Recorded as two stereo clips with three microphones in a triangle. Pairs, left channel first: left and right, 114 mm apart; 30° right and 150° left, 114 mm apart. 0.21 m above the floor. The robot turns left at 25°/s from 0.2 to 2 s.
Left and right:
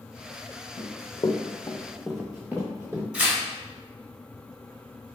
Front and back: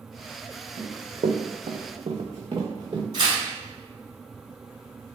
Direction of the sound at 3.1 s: 170° right.